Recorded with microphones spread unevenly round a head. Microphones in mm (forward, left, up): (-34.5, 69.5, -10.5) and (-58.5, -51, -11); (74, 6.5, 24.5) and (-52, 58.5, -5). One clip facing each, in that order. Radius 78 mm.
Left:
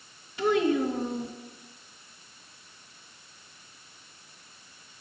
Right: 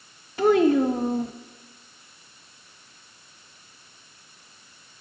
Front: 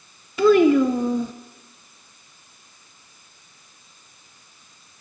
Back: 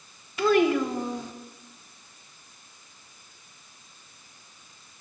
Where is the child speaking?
40° right, 0.5 m.